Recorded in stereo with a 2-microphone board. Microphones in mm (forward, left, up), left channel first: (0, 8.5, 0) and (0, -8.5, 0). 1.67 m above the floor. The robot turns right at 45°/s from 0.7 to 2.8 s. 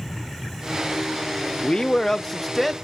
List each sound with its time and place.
1.6 s a man speaking: 140° left, 0.6 m; by 2.7 s 170° right, 0.6 m